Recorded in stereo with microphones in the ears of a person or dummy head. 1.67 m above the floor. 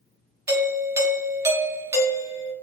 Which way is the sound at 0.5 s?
15° right (ahead or behind).